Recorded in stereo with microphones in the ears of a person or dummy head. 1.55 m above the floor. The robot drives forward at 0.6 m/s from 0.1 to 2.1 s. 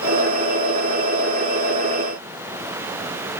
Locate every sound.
Only background noise.